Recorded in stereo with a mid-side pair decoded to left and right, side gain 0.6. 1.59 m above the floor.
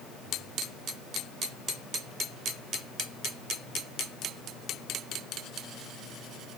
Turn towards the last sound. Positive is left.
No sound to turn to.